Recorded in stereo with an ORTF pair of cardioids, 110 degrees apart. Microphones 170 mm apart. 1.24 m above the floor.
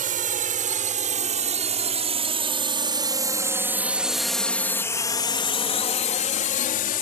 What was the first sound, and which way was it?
A drone, 50° right.